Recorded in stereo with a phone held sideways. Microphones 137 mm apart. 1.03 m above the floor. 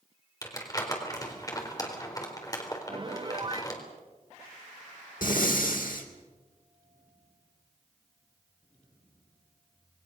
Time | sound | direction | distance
0.4 | crumpling | 25° left (ahead or behind) | 4 m
2.9 | a piano | 35° right (ahead or behind) | 0.6 m
5.2 | breathing | 85° left | 3 m